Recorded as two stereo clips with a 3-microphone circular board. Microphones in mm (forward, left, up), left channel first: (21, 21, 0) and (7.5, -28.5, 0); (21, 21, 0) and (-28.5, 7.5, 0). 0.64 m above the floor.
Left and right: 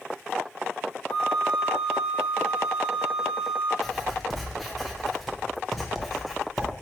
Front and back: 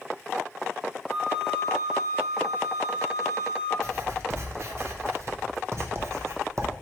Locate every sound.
1.1 s a flute: 90° left, 1.3 m
3.8 s writing: 165° left, 0.7 m